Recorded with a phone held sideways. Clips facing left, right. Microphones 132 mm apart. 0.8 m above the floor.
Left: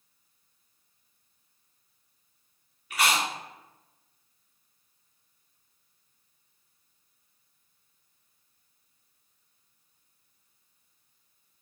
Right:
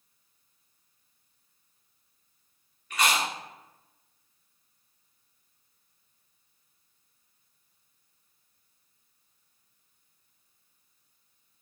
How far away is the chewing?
About 1.4 m.